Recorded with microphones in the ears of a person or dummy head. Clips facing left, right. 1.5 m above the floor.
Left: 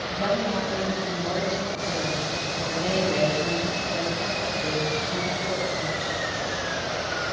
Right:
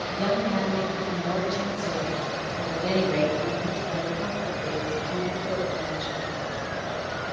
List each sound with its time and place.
0.1 s a woman speaking: 10° left (ahead or behind), 8.5 m